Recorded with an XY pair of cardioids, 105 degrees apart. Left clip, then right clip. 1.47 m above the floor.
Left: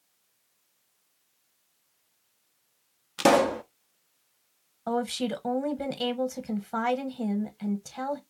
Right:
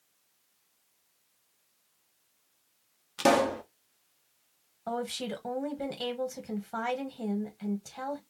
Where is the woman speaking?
30° left, 1.2 m.